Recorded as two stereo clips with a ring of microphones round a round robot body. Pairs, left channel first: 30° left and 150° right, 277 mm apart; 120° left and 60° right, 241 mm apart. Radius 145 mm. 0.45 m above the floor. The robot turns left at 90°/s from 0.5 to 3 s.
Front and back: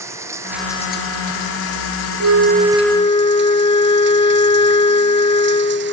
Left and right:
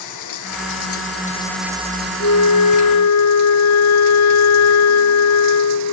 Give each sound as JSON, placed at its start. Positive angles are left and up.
{"t": 0.0, "sound": "running water", "azimuth_deg": 130}
{"t": 2.2, "sound": "a flute", "azimuth_deg": 175}